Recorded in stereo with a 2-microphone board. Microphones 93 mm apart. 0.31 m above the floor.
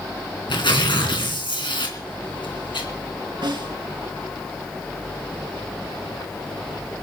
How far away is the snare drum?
About 4.5 m.